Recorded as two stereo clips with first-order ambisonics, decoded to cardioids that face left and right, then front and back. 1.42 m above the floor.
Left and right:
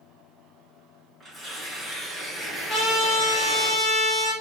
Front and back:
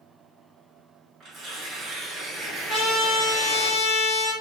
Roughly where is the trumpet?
Ahead left.